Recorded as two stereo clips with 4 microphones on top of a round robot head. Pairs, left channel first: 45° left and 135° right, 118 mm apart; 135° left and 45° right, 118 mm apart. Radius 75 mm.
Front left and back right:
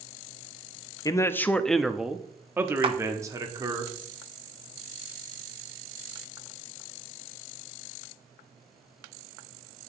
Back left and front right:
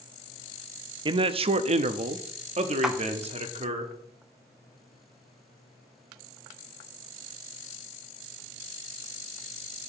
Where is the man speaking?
10° right, 0.7 m; by 3.8 s 80° right, 1.7 m.